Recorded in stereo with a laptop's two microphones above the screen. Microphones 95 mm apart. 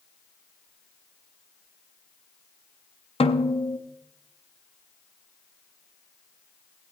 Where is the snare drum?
70° left (ahead or behind), 0.7 m.